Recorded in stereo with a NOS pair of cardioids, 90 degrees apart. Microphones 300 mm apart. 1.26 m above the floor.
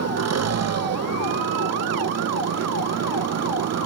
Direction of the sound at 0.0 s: 55° right.